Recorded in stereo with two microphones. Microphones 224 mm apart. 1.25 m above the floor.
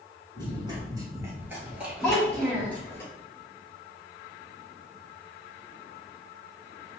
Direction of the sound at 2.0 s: 5° left (ahead or behind).